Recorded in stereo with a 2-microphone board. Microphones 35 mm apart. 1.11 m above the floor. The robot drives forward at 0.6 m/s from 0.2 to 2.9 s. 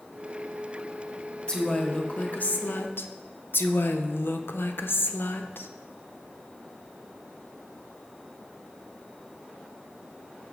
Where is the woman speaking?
25° left (ahead or behind), 1.1 m; by 5.7 s 75° left (ahead or behind), 0.5 m.